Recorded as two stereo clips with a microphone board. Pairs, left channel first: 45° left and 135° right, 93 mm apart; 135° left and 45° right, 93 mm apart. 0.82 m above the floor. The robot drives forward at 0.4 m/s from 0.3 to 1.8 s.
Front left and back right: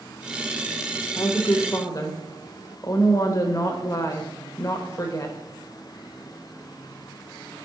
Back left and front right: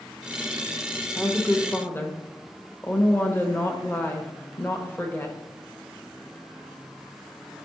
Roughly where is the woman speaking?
Ahead left.